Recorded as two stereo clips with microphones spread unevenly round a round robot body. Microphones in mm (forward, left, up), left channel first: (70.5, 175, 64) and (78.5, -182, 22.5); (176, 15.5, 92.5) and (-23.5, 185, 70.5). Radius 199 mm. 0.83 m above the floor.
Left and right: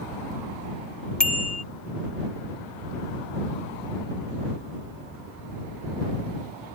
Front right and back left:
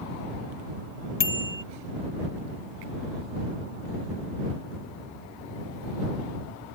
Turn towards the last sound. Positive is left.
turn(degrees=0)